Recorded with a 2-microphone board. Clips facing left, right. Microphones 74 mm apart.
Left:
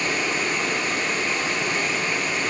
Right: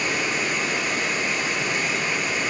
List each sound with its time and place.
0.0 s running water: 10° right (ahead or behind), 2 m